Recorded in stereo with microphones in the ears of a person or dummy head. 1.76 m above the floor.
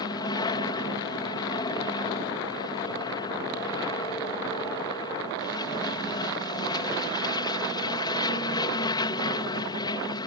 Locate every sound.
0.0 s an aircraft: 25° left (ahead or behind)